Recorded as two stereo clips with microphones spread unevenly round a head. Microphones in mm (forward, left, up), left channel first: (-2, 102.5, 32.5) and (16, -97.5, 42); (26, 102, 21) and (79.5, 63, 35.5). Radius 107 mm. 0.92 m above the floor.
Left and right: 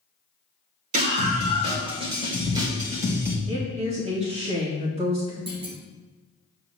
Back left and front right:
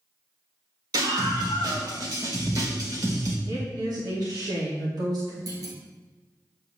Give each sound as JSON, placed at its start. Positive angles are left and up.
{"t": 0.9, "sound": "a scream", "azimuth_deg": -30, "distance_m": 3.5}
{"t": 3.5, "sound": "a woman speaking", "azimuth_deg": -25, "distance_m": 2.5}
{"t": 5.5, "sound": "a clunk", "azimuth_deg": -20, "distance_m": 2.0}